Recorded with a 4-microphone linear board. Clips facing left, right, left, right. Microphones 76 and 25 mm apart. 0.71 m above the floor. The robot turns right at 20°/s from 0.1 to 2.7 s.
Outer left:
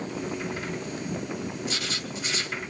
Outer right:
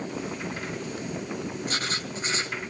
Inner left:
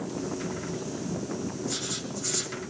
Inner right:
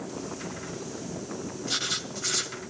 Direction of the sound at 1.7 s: 45° right (ahead or behind).